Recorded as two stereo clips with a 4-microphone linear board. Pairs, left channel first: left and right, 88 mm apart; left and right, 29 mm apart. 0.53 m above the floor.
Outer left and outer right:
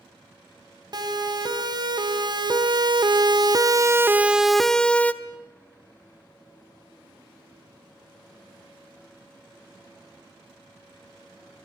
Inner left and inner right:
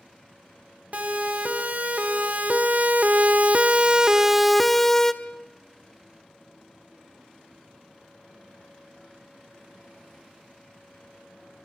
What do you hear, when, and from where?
0.9 s a siren: 50° right (ahead or behind), 3 m; by 5.1 s 15° left (ahead or behind), 1.3 m